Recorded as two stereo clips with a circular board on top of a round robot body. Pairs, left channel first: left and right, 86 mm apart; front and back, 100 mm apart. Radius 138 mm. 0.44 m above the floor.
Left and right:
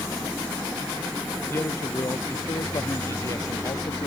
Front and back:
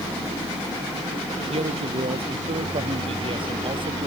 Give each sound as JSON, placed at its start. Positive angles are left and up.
{"t": 1.5, "sound": "a man speaking", "azimuth_deg": 155}